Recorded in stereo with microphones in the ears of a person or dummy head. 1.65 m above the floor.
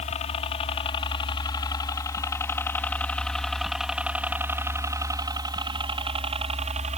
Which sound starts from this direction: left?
A helicopter, at 0.0 s.